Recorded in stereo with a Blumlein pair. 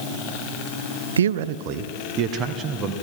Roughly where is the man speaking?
Right.